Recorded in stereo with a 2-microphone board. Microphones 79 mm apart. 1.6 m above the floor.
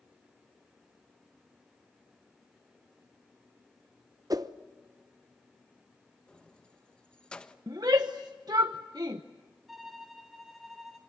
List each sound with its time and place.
4.3 s a whoosh: 50° right (ahead or behind), 0.9 m
6.3 s keys jangling: 10° left (ahead or behind), 1.1 m
7.7 s a shout: 55° right (ahead or behind), 1.0 m
9.7 s a violin: centre (ahead or behind), 2.5 m